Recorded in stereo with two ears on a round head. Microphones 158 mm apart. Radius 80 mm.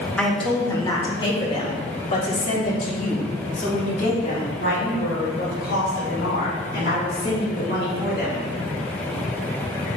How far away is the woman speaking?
About 1.0 m.